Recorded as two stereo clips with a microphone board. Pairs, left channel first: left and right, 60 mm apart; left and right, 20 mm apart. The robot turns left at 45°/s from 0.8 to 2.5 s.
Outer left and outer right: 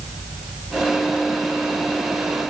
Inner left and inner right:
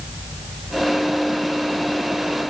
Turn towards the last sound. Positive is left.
No sound to turn to.